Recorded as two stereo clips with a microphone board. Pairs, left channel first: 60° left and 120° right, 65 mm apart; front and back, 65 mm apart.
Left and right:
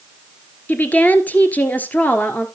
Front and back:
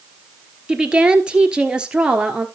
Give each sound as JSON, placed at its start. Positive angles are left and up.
{"t": 0.7, "sound": "a woman speaking", "azimuth_deg": 115, "distance_m": 1.4}